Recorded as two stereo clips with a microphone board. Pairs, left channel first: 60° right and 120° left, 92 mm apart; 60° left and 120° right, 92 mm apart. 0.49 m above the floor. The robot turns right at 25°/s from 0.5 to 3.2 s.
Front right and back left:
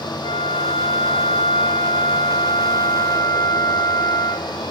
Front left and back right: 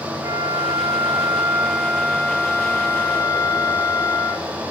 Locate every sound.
0.2 s a flute: 65° right, 0.7 m; by 4.5 s 5° left, 0.7 m